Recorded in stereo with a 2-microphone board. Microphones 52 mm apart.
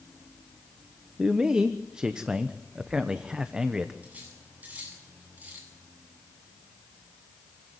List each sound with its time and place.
1.2 s a man speaking: 15° right (ahead or behind), 1.2 m
4.0 s cutlery clinking: 30° right (ahead or behind), 8.5 m